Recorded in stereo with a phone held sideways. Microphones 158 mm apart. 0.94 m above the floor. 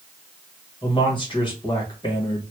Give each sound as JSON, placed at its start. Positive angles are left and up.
{"t": 0.8, "sound": "a man speaking", "side_deg": 30, "distance_m": 1.7}